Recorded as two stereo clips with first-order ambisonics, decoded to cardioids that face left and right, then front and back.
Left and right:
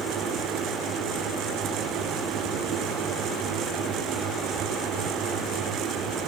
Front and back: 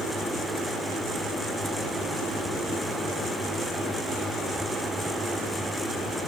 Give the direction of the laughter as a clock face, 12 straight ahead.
I don't hear laughter.